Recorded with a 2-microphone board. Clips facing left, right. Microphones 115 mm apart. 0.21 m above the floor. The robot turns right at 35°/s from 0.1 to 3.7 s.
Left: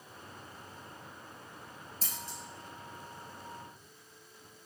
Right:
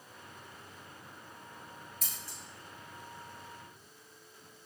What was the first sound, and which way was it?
Scissors, 30° left (ahead or behind).